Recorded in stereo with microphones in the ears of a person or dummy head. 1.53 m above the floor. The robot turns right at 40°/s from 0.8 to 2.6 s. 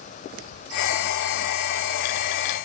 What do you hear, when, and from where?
Only background noise.